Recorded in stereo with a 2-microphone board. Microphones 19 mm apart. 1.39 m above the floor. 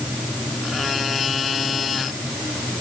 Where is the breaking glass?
I don't hear breaking glass.